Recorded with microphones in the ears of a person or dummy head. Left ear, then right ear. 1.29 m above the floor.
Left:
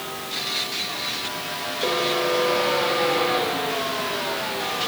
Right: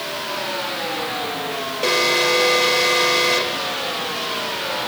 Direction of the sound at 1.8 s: 80° right.